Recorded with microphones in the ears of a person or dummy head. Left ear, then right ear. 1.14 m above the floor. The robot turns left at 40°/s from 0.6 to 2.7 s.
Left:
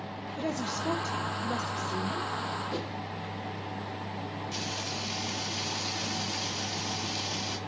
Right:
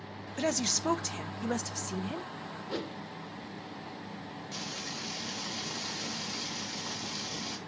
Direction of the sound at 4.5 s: Centre (ahead or behind).